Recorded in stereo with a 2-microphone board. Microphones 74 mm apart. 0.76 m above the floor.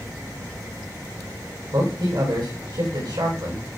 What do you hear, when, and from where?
1.7 s a man speaking: 80° right, 5.5 m